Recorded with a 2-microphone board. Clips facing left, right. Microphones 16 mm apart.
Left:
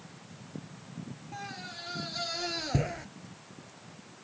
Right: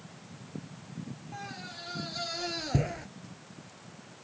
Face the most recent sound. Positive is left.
turn(degrees=5)  # may be behind; listen again after turning